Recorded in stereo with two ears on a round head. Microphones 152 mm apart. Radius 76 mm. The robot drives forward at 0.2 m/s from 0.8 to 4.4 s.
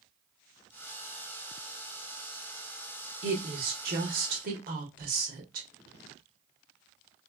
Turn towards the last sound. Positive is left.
turn(degrees=-50)  # may be behind; listen again after turning